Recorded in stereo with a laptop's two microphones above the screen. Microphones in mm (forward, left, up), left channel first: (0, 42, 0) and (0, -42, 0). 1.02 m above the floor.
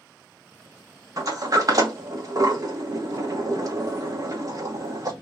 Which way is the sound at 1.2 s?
45° right (ahead or behind).